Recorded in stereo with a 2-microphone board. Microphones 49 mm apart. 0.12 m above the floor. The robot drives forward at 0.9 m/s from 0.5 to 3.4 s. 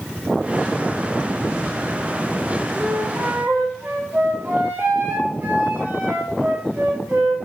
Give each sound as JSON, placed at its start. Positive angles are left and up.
{"t": 2.8, "sound": "a flute", "side_deg": -55, "distance_m": 3.5}